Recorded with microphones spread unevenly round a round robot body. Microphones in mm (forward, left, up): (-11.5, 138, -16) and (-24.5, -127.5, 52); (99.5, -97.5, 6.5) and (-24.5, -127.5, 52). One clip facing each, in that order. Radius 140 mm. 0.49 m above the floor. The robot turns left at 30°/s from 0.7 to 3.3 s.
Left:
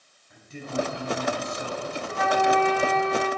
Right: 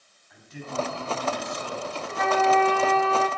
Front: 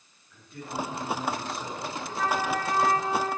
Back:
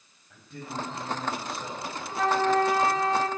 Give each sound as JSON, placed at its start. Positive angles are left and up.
{"t": 0.3, "sound": "a man speaking", "azimuth_deg": 145, "distance_m": 4.0}
{"t": 2.1, "sound": "a flute", "azimuth_deg": -160, "distance_m": 1.7}